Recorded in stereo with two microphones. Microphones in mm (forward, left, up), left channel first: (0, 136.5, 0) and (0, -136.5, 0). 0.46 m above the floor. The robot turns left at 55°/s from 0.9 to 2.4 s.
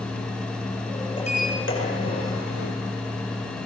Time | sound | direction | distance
1.2 | a sliding door | 160° left | 8.5 m